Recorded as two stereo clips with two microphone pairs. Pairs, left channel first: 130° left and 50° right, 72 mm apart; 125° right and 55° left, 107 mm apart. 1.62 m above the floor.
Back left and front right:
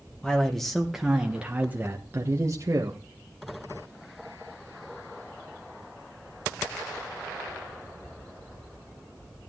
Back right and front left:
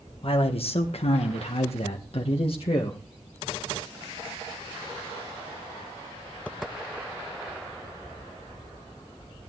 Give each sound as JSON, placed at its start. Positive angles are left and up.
{"t": 0.2, "sound": "a man speaking", "azimuth_deg": -155, "distance_m": 1.4}